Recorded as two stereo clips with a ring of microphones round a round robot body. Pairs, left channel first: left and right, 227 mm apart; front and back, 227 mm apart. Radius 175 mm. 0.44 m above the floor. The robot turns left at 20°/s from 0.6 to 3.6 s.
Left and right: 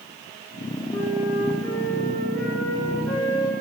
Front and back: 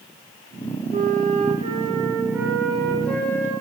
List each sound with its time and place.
0.9 s a flute: 130° left, 4 m; by 3.5 s 75° left, 4 m